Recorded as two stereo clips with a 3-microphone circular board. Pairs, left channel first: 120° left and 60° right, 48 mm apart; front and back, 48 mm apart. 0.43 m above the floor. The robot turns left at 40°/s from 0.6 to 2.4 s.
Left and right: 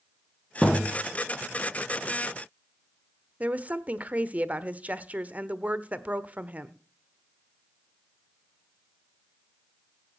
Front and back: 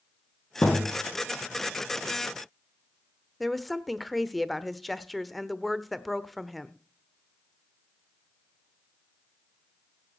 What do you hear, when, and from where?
0.6 s a thud: 40° left, 4.5 m; by 0.9 s 30° left, 4.5 m
3.4 s a woman speaking: 90° right, 1.1 m